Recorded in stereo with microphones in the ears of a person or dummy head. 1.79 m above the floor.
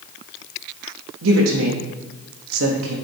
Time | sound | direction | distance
1.2 | a woman speaking | 80° right | 1.2 m